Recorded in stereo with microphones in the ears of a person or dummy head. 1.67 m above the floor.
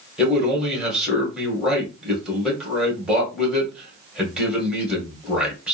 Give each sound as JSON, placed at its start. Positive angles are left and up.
{"t": 0.2, "sound": "a man speaking", "side_deg": -5, "distance_m": 1.7}